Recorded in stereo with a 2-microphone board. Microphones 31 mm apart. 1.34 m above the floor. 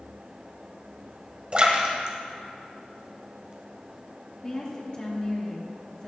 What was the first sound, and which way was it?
A splash, 35° right (ahead or behind).